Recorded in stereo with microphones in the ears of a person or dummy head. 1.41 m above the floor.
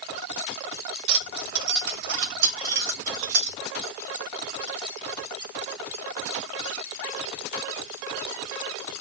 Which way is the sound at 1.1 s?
65° right (ahead or behind).